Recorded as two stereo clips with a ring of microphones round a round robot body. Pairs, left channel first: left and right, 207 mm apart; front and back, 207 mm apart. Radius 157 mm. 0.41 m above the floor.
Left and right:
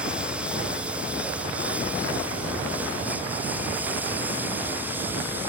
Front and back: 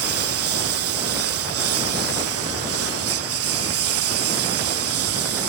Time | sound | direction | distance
0.0 | a lawn mower | 175° right | ?